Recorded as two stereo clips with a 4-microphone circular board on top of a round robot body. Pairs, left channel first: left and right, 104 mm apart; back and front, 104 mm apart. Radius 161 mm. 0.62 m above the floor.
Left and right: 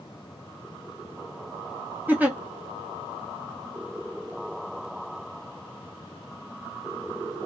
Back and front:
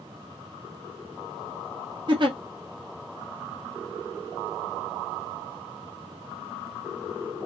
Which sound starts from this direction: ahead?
A giggle, at 2.1 s.